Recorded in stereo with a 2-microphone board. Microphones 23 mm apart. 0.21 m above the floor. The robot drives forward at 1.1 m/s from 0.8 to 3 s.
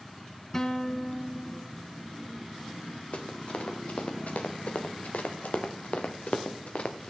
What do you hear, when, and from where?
0.5 s a guitar: 15° left (ahead or behind), 1.2 m; by 1.8 s 10° left (ahead or behind), 2.5 m
3.1 s running footsteps: 55° left (ahead or behind), 3 m